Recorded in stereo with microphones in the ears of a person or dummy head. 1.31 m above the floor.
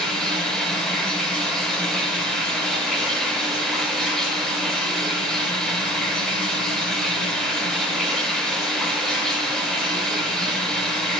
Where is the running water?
5° left (ahead or behind), 5.5 m.